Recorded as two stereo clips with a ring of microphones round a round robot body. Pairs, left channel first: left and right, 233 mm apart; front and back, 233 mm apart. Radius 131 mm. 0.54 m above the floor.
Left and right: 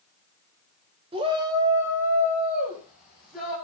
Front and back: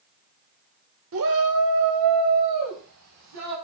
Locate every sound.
1.1 s a shout: 155° right, 1.5 m; by 3.5 s straight behind, 4 m